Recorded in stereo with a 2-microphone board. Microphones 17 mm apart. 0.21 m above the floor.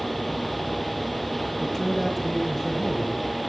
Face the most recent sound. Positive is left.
turn(degrees=45)  # may be behind; listen again after turning